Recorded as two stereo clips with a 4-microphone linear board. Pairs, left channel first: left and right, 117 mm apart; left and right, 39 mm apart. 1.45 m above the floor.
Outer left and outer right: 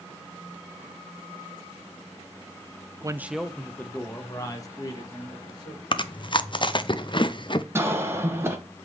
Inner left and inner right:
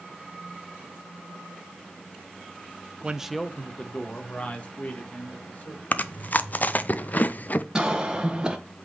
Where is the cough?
20° right (ahead or behind), 1.2 m.